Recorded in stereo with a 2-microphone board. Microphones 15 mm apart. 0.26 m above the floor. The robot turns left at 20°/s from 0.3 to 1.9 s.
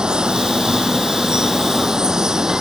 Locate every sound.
0.0 s running water: 95° right; by 2.6 s 125° right